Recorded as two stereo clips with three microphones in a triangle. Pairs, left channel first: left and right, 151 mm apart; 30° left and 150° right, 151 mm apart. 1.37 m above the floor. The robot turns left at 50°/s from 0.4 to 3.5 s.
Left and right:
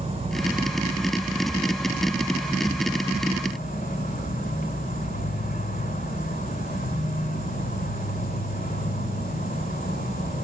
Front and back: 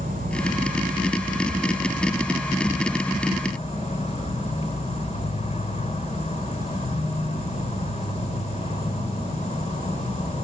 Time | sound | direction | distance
0.0 | an insect | 130° right | 2.5 m